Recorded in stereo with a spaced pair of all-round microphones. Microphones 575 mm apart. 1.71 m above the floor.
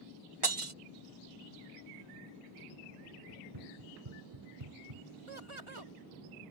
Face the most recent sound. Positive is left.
turn(degrees=-55)  # may be behind; listen again after turning